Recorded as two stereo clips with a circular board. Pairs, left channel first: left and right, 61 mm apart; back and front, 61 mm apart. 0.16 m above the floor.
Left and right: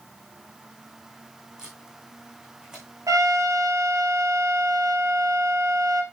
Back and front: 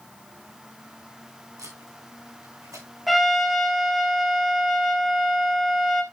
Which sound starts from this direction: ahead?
Tape being pulled, at 1.6 s.